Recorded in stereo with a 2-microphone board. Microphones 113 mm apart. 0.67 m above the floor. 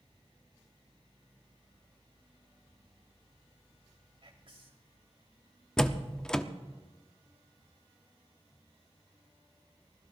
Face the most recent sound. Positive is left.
turn(degrees=5)  # may be behind; listen again after turning